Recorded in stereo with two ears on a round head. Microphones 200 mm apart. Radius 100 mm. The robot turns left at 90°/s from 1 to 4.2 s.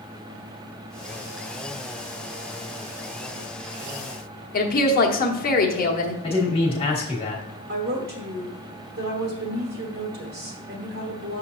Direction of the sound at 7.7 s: 50° right (ahead or behind).